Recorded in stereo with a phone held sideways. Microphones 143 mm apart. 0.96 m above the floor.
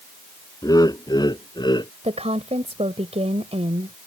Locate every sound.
0.6 s laughter: 25° left (ahead or behind); by 1.9 s 30° left (ahead or behind)
2.0 s a woman speaking: 45° right (ahead or behind)